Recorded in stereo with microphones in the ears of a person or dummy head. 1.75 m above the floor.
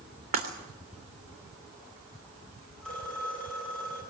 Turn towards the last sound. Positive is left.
turn(degrees=5)  # may be behind; listen again after turning